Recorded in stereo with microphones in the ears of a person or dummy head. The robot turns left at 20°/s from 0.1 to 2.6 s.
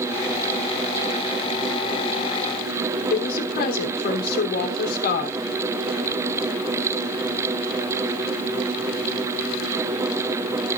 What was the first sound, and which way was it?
A woman speaking, 60° left (ahead or behind).